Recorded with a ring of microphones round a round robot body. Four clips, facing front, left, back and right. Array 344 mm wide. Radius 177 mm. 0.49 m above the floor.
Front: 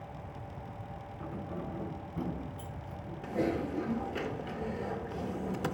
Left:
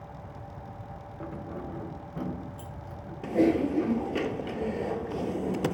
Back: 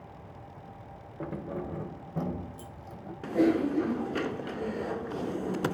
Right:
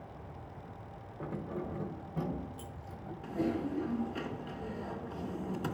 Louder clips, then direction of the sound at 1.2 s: Even, back 5 dB; 175° left.